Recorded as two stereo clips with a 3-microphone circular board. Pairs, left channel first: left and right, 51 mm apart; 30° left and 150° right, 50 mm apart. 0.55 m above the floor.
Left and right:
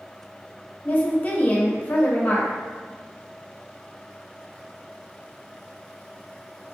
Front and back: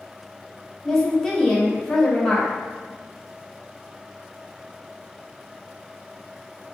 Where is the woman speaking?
100° left, 0.7 m.